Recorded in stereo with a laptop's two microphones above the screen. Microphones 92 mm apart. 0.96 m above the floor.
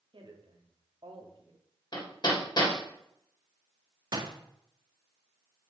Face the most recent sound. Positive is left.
turn(degrees=-45)  # may be behind; listen again after turning